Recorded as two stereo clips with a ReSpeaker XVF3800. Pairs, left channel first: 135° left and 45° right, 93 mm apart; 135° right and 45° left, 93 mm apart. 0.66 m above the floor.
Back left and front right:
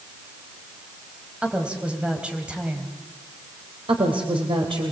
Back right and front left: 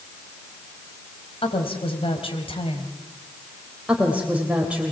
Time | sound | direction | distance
1.4 | a woman speaking | 125° right | 3.5 m
3.9 | a woman speaking | 30° right | 3 m